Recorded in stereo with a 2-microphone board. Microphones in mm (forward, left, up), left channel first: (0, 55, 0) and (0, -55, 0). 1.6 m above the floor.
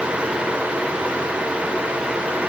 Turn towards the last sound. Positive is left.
No sound to turn to.